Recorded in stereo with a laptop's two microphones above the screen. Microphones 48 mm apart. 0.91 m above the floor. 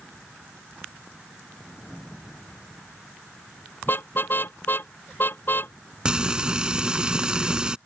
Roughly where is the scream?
I don't hear a scream.